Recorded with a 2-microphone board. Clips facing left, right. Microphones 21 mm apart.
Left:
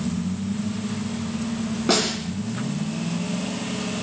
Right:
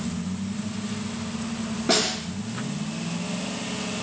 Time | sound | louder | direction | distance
1.9 | a snare drum | left 1 dB | 15° left (ahead or behind) | 2.5 m